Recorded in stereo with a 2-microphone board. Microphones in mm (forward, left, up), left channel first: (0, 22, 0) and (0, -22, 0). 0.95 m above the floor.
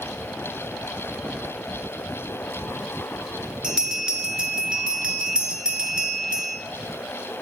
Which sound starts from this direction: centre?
A bell, at 3.6 s.